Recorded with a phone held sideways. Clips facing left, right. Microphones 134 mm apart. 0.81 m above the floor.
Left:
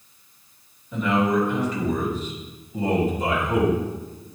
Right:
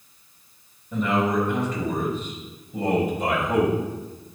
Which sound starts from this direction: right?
A man speaking, at 0.9 s.